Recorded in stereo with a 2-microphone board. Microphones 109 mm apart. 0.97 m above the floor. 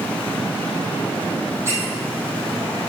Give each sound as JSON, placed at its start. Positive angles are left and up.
{"t": 1.6, "sound": "a squeak", "side_deg": -25, "distance_m": 2.5}